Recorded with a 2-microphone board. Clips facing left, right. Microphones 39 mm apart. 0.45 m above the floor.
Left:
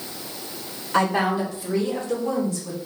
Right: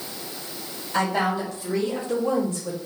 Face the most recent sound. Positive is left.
turn(degrees=-40)  # may be behind; listen again after turning